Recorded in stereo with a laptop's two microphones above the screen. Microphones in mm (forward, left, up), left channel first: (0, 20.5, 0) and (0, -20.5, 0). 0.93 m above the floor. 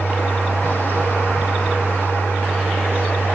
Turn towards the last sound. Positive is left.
turn(degrees=65)  # may be behind; listen again after turning